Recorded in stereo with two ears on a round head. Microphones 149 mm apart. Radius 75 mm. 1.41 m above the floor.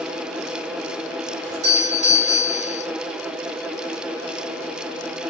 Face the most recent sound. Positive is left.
turn(degrees=-45)  # may be behind; listen again after turning